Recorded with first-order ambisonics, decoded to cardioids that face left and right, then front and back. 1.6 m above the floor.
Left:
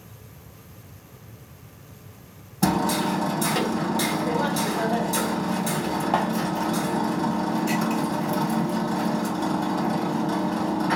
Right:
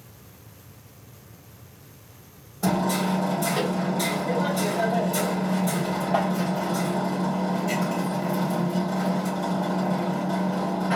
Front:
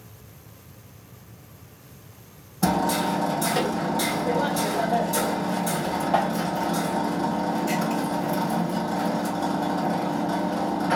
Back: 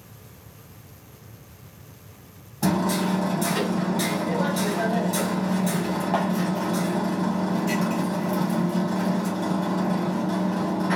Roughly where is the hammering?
Left.